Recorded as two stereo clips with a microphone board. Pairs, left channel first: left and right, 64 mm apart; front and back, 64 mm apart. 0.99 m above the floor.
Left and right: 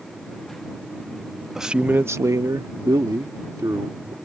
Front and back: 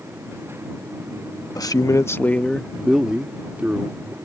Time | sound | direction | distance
1.6 | a man speaking | 5° right | ?